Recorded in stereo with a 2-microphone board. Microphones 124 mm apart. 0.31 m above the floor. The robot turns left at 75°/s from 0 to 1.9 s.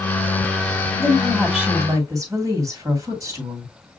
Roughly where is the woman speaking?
Ahead left.